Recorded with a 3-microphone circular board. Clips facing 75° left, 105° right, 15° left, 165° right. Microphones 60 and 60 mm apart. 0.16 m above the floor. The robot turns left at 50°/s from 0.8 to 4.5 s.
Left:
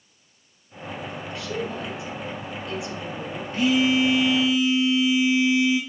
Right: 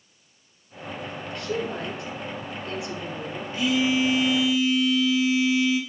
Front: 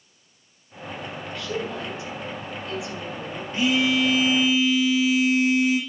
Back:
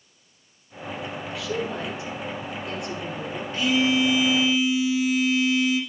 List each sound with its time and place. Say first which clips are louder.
1.4 s a woman speaking: right 2 dB, back 1 dB; 80° right, 2.0 m; by 3.4 s 175° left, 2.0 m
3.5 s a phone buzzing: left 3 dB, even; 75° left, 1.9 m; by 5.8 s 25° left, 1.9 m